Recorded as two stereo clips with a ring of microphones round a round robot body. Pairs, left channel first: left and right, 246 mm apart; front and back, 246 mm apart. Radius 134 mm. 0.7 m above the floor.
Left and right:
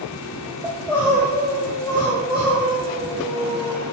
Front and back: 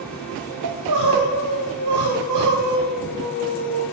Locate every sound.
0.6 s crying: 165° left, 1.4 m